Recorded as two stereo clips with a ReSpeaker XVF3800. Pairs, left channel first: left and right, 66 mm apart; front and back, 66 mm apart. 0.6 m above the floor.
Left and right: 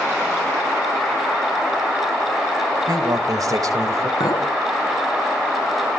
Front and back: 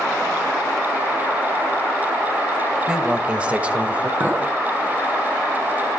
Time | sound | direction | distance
2.9 | a man speaking | 105° right | 3 m
4.2 | a clink | 115° left | 4.5 m